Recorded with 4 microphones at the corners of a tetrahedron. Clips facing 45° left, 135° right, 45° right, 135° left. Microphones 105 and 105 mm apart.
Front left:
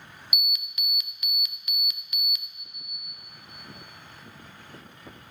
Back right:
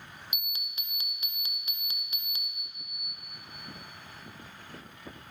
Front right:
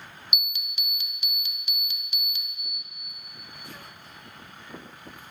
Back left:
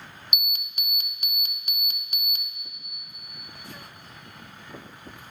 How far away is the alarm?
About 0.5 m.